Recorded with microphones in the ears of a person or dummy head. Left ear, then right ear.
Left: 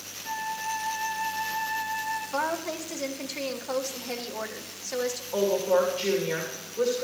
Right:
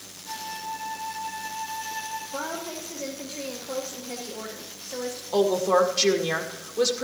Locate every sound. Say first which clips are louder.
0.2 s a flute: left 3 dB; 60° left (ahead or behind), 7.5 m
2.3 s a woman speaking: left 3 dB; 55° left (ahead or behind), 1.6 m
5.3 s a woman speaking: right 3 dB; 80° right, 2.0 m